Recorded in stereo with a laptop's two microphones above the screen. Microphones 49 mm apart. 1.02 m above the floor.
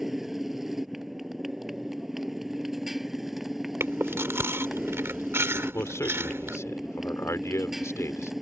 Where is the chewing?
55° right (ahead or behind).